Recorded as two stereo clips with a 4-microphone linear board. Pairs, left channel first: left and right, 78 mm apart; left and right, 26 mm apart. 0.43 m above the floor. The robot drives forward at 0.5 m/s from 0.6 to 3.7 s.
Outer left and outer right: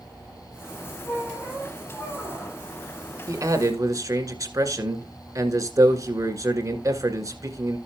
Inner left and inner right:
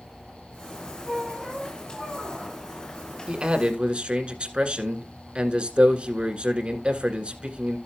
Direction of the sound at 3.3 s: 45° right (ahead or behind).